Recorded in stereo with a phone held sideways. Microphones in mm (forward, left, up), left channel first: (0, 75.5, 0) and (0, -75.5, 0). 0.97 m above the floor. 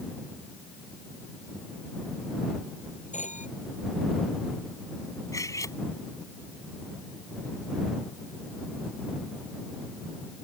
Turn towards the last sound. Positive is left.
turn(degrees=20)  # may be behind; listen again after turning